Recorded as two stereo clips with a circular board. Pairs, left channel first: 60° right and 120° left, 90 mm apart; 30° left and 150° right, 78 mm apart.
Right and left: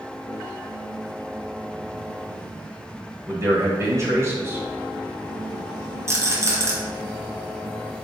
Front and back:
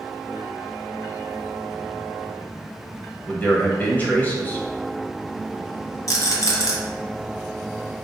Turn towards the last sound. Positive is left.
turn(degrees=70)